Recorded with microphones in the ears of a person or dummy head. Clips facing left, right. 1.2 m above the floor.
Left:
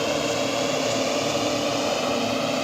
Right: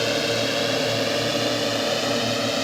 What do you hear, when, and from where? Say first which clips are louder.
0.0 s a drone: even; 20° right (ahead or behind); by 2.6 s 15° right (ahead or behind)